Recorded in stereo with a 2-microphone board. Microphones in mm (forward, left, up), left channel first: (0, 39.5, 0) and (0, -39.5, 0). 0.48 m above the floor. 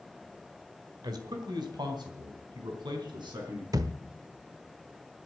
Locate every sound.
1.0 s a man speaking: 60° right (ahead or behind), 1.6 m; by 3.6 s 80° right, 5 m
3.7 s a thud: 50° right (ahead or behind), 0.6 m